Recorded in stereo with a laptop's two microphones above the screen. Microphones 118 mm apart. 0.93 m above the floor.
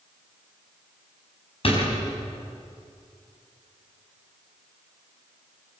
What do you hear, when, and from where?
1.6 s a door slam: 50° left (ahead or behind), 5.5 m